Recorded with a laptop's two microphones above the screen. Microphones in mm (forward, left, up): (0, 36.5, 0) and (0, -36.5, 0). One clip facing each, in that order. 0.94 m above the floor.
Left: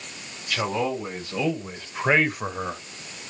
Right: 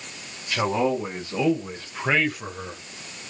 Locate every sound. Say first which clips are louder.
0.5 s a man speaking: right 3 dB; 20° right (ahead or behind), 1.6 m; by 2.8 s 45° left (ahead or behind), 0.8 m